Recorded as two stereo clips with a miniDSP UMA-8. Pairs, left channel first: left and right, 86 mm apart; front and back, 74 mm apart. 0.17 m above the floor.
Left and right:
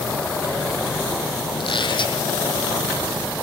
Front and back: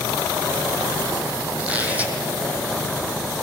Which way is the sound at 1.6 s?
110° left.